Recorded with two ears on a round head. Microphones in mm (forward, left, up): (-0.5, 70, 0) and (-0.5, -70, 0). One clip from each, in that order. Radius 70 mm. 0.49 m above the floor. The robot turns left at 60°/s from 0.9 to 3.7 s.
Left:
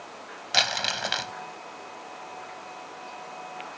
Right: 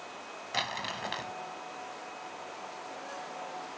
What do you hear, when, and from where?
0.5 s crumpling: 85° left; by 1.3 s 65° left (ahead or behind)